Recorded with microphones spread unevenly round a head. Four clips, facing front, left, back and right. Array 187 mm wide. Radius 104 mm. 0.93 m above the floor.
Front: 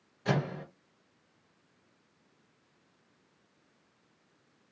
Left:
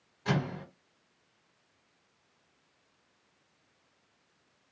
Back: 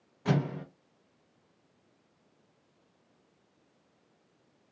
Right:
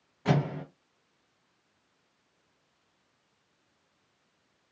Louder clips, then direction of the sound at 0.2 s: Right 4 dB, back 1 dB; 140° right.